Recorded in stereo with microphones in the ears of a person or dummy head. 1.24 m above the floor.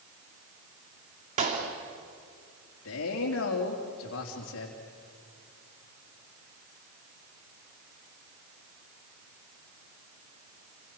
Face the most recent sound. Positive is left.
turn(degrees=70)  # may be behind; listen again after turning